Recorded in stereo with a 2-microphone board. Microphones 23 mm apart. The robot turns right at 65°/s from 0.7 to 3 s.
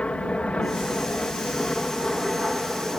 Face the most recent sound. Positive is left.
turn(degrees=-145)